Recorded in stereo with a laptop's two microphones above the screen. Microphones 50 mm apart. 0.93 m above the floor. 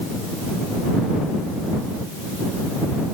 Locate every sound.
Only background noise.